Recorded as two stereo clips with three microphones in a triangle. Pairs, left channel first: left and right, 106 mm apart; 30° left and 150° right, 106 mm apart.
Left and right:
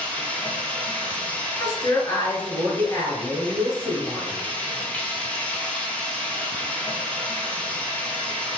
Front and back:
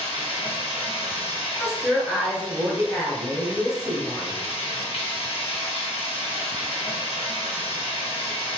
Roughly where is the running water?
Ahead.